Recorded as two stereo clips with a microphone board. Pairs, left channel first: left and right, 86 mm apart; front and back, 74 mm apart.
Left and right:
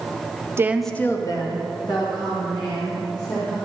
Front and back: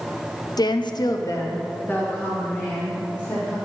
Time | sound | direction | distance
0.6 | a woman speaking | 30° right | 0.6 m